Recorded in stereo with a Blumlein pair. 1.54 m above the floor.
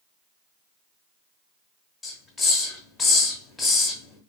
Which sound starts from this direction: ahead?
A hiss, at 2.0 s.